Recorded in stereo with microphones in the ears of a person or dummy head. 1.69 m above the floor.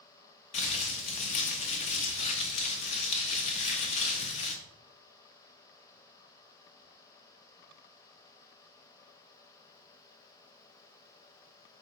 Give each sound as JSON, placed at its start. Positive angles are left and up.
{"t": 0.5, "sound": "crumpling", "side_deg": 35, "distance_m": 0.5}